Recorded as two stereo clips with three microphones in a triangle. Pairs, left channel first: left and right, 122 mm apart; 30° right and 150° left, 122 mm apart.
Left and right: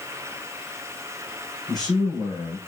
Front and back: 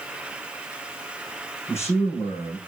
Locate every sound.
1.7 s a man speaking: 35° left, 6 m